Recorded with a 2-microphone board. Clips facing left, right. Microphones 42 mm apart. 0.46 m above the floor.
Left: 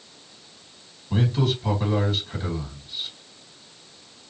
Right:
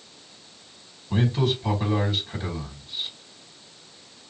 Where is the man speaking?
5° right (ahead or behind), 1.8 m.